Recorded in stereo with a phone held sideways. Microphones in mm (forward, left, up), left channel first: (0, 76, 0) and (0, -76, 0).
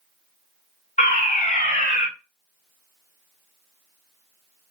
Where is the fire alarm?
55° left (ahead or behind), 2.5 m.